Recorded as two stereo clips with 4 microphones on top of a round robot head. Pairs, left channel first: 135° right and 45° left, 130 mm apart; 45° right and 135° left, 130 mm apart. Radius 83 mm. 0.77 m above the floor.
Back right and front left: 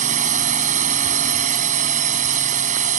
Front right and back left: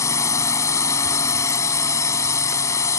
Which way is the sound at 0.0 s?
20° left.